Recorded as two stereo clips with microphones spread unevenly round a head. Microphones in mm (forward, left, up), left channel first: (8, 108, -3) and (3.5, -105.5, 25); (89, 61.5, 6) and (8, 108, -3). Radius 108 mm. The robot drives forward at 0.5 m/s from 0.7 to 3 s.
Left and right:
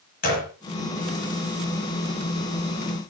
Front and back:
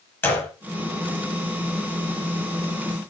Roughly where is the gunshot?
Ahead left.